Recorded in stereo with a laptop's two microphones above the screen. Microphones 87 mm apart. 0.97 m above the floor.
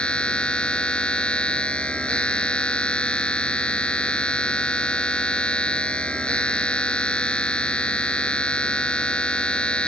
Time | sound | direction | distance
0.0 | a machine running | 10° left (ahead or behind) | ?